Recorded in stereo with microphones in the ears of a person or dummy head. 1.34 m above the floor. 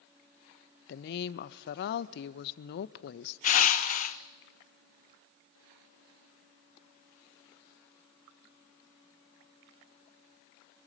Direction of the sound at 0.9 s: 75° left (ahead or behind).